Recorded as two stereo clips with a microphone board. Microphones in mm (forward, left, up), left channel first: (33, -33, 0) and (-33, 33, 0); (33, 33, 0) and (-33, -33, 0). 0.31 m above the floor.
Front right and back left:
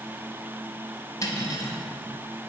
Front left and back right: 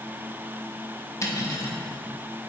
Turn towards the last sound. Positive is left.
turn(degrees=-5)